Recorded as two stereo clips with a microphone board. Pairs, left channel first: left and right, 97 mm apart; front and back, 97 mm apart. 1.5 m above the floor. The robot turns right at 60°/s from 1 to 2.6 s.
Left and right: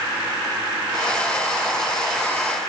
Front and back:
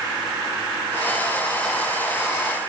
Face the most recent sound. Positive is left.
No sound to turn to.